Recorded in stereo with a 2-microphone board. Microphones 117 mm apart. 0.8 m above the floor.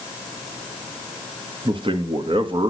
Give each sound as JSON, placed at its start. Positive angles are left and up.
{"t": 1.6, "sound": "a man speaking", "side_deg": -45, "distance_m": 1.3}